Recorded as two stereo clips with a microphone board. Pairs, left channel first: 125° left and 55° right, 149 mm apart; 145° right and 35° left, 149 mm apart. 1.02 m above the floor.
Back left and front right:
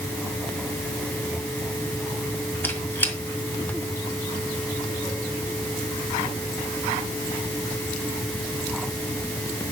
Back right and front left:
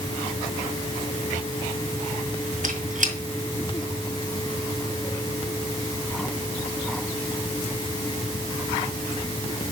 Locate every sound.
2.6 s a squeak: 50° left, 1.7 m